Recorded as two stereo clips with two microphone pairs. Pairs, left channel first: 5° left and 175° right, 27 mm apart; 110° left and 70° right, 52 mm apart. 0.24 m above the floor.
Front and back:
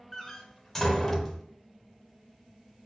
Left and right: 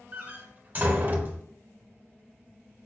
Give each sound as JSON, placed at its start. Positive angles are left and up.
{"t": 0.1, "sound": "a door slam", "azimuth_deg": -55, "distance_m": 0.8}